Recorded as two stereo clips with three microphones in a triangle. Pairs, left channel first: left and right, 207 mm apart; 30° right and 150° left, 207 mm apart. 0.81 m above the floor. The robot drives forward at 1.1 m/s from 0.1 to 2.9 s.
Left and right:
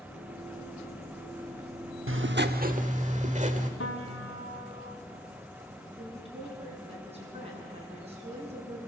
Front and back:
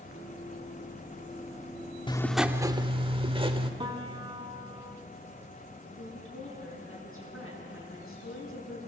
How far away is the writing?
About 0.8 m.